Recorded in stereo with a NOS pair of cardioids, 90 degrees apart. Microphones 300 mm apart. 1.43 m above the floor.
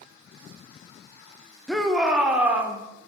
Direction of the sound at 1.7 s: Straight ahead.